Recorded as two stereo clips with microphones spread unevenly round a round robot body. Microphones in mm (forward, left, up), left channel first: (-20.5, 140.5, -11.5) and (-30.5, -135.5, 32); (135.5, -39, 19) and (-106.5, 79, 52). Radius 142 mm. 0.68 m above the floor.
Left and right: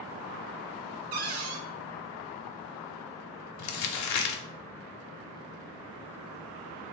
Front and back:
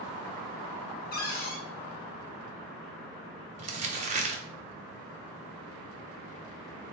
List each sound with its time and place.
1.1 s a cupboard door: 85° right, 0.6 m
3.6 s crumpling: 100° left, 0.6 m